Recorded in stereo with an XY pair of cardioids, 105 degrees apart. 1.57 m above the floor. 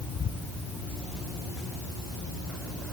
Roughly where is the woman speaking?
I don't hear a woman speaking.